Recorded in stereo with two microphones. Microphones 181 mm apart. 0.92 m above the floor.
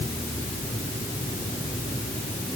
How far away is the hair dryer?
I don't hear a hair dryer.